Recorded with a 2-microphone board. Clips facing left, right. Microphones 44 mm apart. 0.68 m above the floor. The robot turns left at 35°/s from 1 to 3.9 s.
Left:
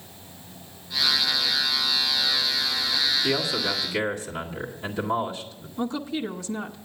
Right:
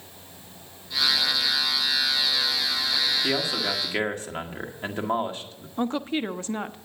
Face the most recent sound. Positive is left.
turn(degrees=-40)  # may be behind; listen again after turning